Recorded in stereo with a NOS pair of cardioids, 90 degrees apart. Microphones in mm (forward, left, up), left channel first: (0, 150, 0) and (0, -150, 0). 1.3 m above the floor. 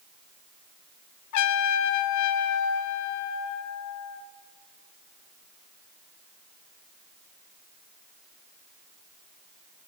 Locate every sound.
1.3 s a trumpet: 65° left, 0.8 m